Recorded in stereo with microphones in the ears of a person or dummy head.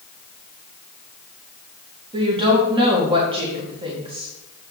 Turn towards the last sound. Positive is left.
turn(degrees=-25)  # may be behind; listen again after turning